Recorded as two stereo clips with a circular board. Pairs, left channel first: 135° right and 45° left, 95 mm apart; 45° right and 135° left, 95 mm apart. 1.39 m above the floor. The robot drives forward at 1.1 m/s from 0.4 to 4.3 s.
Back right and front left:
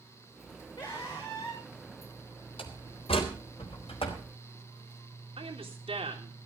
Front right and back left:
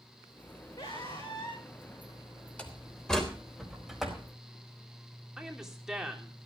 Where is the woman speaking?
50° left, 3.5 m.